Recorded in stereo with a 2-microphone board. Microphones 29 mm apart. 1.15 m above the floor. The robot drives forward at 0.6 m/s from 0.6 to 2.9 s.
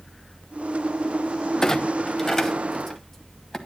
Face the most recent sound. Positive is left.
turn(degrees=15)  # may be behind; listen again after turning